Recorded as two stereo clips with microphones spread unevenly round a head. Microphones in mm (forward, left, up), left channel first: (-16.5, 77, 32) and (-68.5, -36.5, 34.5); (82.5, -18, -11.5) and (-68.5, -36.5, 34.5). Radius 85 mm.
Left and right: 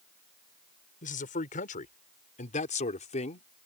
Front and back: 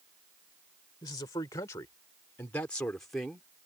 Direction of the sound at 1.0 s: 75° left.